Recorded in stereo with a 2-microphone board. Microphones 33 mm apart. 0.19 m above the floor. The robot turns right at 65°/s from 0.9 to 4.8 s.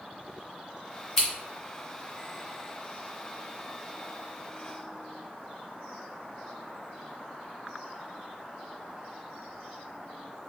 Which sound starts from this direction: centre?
Scissors, at 1.2 s.